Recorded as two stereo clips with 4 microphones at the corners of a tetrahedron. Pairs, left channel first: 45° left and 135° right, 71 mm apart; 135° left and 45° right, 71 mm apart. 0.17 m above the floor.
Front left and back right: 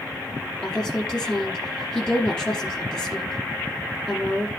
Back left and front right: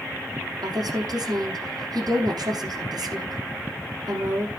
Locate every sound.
0.6 s a woman speaking: 35° right, 6 m